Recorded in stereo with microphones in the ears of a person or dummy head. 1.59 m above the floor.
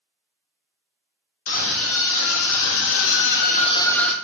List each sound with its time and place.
1.5 s a scream: 80° left, 1.6 m; by 4.2 s 10° right (ahead or behind), 0.6 m